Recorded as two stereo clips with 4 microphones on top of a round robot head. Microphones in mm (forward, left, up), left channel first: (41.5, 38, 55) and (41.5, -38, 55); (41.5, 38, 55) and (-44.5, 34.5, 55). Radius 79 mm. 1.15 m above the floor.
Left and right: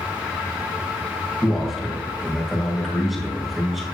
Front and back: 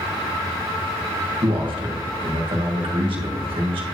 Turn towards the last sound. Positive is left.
turn(degrees=180)